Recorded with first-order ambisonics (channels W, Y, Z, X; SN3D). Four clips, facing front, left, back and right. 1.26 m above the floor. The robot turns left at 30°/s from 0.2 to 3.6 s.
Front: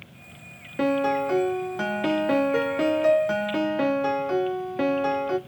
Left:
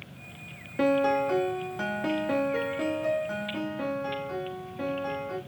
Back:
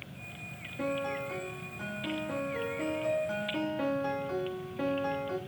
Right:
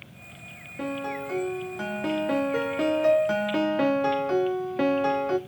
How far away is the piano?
About 1.0 m.